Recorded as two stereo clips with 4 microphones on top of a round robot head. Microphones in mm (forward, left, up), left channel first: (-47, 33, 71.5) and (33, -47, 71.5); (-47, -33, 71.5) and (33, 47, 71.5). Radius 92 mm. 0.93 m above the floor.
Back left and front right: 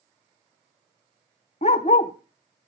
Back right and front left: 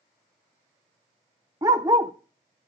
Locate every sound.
1.6 s a dog barking: 100° left, 0.5 m